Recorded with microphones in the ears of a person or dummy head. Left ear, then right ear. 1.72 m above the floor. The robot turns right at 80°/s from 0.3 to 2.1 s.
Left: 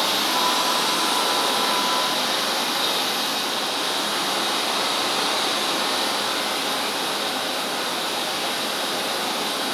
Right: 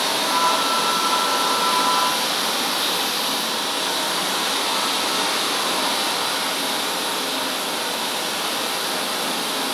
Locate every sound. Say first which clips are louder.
0.0 s running water: right 1 dB; 30° left, 1.3 m; by 9.8 s 175° left, 1.3 m